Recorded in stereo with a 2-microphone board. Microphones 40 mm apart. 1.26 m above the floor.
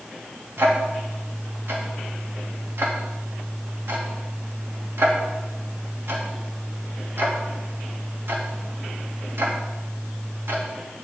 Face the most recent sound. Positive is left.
turn(degrees=-85)